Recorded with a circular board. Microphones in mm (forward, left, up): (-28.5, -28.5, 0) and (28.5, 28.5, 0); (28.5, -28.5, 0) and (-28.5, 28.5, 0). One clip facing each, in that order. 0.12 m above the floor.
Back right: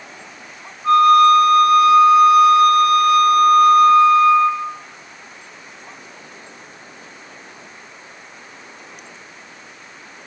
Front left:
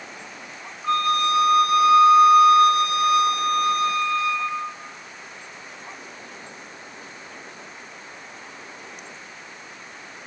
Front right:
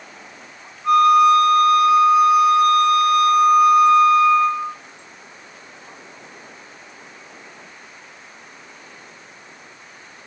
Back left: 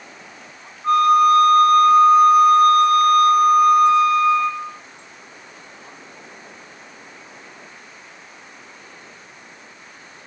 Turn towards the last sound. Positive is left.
turn(degrees=100)